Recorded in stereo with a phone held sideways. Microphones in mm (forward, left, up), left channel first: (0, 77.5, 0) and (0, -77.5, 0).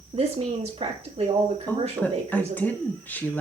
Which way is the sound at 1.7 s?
10° left (ahead or behind).